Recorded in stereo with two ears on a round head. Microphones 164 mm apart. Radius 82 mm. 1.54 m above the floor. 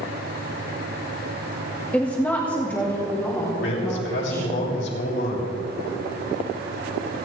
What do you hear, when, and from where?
1.9 s a woman speaking: 5° left (ahead or behind), 0.9 m; by 4.6 s 10° left (ahead or behind), 5 m
3.6 s a man speaking: 70° left (ahead or behind), 6 m